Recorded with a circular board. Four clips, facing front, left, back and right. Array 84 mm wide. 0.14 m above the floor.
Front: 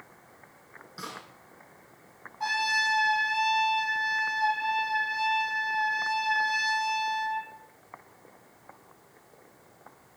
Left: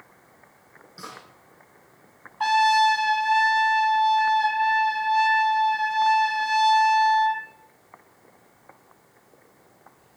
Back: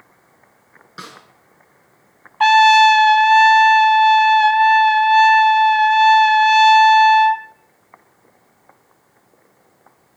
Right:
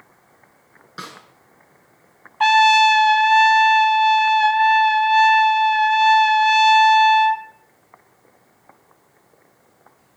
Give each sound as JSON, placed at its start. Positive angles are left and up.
{"t": 1.0, "sound": "a snare drum", "azimuth_deg": -120, "distance_m": 6.0}
{"t": 2.4, "sound": "a trumpet", "azimuth_deg": -145, "distance_m": 1.1}